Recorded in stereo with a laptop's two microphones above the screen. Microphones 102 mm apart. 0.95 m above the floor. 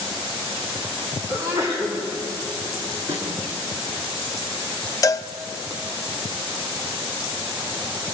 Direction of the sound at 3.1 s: 80° right.